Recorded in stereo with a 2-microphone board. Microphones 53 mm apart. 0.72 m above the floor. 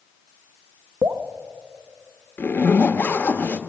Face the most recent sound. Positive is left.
turn(degrees=35)  # may be behind; listen again after turning